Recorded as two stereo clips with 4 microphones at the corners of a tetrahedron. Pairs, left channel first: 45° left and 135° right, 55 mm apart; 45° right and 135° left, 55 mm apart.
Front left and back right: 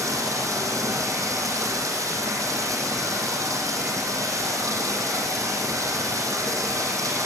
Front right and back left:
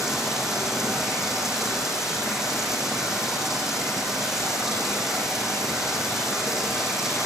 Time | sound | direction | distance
0.0 | running water | 140° right | 8 m